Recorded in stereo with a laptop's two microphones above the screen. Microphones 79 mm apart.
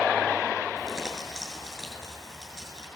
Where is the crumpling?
5° right (ahead or behind), 8 m.